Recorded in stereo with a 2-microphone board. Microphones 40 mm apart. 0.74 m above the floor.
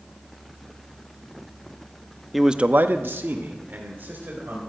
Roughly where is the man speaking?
Centre.